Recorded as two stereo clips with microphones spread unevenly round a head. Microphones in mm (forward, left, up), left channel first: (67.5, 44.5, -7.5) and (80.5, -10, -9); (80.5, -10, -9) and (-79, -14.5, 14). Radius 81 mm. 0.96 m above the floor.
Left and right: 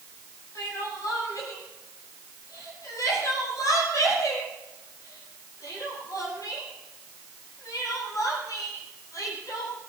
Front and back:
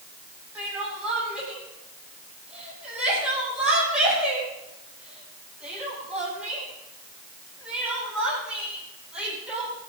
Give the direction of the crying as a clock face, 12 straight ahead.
9 o'clock.